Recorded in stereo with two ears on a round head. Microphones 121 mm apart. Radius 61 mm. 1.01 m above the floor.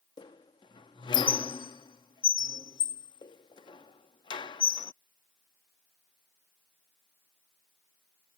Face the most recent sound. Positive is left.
turn(degrees=35)  # may be behind; listen again after turning